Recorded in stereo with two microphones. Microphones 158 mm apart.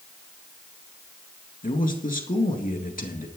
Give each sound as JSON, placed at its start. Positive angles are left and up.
{"t": 1.6, "sound": "a man speaking", "side_deg": 60, "distance_m": 2.5}